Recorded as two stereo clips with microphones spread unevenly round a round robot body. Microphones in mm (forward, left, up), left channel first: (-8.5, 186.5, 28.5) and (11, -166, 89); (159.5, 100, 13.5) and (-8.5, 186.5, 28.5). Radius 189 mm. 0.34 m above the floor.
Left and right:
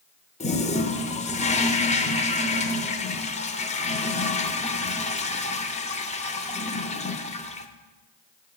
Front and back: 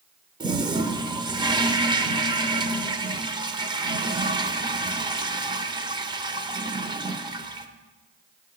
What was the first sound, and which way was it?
A toilet flushing, 100° left.